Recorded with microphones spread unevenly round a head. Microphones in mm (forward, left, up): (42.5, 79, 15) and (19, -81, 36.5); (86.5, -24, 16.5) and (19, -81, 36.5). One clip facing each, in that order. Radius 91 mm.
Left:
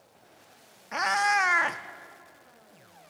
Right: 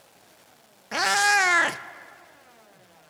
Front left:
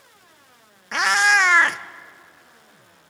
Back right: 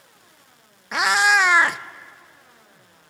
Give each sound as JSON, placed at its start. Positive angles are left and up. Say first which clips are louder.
{"t": 0.9, "sound": "a cat meowing", "louder": "right 2 dB, even", "azimuth_deg": -75, "distance_m": 0.5}